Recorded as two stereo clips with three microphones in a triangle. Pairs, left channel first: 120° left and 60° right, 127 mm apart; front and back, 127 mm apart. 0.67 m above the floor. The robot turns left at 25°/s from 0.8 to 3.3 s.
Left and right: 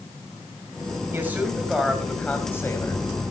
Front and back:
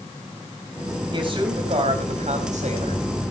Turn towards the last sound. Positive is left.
turn(degrees=175)